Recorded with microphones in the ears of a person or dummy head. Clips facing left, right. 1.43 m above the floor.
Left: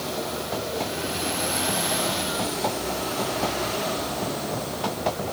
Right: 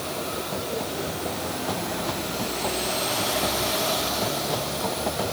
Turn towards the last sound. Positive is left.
No sound to turn to.